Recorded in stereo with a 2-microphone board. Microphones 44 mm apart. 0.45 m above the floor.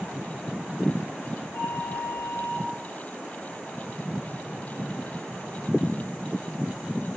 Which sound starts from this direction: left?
A flute, at 1.5 s.